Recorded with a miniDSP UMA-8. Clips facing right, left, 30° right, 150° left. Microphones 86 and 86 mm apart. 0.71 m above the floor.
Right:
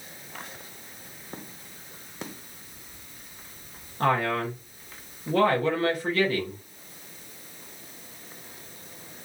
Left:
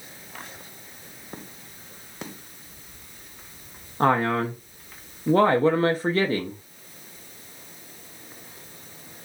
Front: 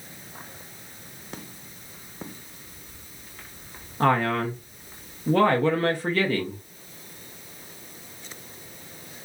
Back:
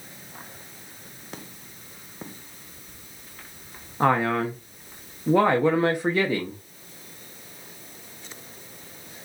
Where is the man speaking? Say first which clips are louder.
Left 3 dB, back 1 dB; 90° left, 0.6 m.